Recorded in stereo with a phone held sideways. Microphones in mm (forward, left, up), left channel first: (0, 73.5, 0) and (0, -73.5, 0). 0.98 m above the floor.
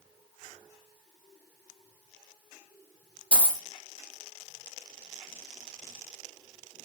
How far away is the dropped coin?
About 0.7 m.